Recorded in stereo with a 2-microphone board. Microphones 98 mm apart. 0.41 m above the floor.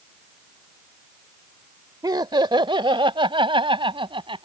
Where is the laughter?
45° right (ahead or behind); by 4.4 s 65° right (ahead or behind).